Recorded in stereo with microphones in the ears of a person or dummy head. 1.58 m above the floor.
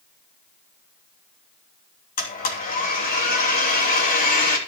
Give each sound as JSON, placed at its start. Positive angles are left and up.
{"t": 2.2, "sound": "a blender", "side_deg": 50, "distance_m": 3.5}